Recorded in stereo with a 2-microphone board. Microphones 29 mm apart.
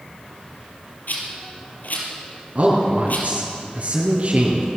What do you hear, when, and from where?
1.1 s a rattle: 60° left (ahead or behind), 5 m
2.5 s a man speaking: 40° right (ahead or behind), 4.5 m